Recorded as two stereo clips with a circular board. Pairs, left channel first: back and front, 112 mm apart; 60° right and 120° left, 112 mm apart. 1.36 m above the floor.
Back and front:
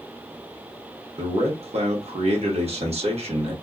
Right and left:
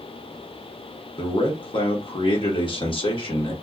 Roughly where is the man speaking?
Ahead.